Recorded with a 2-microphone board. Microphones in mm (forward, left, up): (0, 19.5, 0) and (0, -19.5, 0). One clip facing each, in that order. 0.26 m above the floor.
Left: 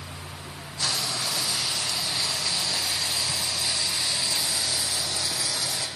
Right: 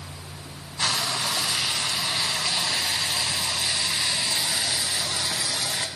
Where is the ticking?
No ticking in this recording.